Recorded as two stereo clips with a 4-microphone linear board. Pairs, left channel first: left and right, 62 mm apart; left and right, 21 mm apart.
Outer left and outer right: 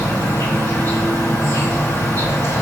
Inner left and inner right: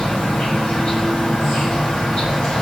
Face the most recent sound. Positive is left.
turn(degrees=45)  # may be behind; listen again after turning